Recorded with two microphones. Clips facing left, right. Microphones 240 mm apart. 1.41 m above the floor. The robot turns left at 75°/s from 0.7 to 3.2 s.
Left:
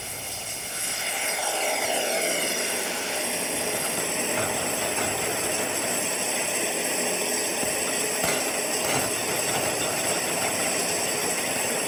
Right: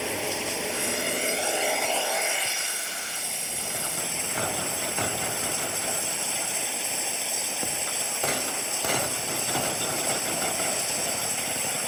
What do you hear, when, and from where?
0.0 s running water: 100° right; by 11.9 s 75° left